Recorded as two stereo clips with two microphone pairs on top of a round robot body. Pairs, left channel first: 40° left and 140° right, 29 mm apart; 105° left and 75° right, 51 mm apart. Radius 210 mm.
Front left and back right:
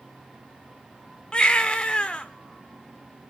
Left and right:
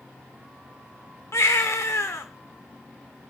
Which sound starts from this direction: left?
A baby crying, at 1.3 s.